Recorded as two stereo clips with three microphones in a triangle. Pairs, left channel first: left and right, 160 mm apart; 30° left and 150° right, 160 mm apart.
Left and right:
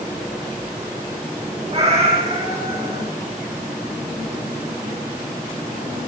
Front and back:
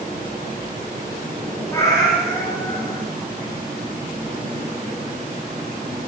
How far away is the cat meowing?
About 7.5 m.